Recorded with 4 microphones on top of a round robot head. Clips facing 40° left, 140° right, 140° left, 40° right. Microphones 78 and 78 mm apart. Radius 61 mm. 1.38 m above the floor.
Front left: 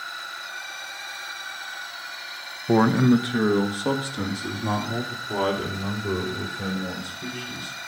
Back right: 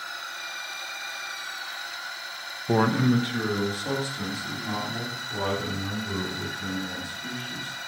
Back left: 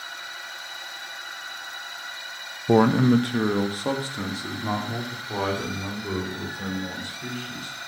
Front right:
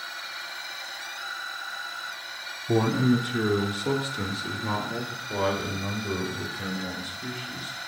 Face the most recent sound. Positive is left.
turn(degrees=70)